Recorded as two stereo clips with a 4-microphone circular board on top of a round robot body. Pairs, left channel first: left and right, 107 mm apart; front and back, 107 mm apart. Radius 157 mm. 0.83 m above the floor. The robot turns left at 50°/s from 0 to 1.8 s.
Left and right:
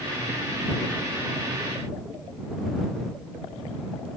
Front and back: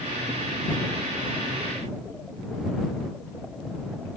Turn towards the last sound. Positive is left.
No sound to turn to.